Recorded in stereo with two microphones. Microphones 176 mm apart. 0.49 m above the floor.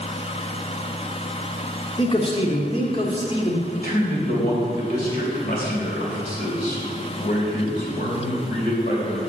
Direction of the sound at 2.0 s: 30° left (ahead or behind).